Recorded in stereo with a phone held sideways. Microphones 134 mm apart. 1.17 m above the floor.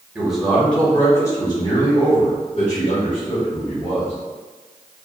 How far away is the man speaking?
About 1.4 m.